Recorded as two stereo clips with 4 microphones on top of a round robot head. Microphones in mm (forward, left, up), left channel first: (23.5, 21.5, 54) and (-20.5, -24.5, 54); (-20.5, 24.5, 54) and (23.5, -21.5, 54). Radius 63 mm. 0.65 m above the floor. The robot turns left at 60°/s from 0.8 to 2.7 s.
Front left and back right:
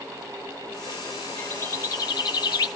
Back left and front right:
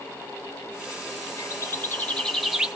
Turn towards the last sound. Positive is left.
turn(degrees=30)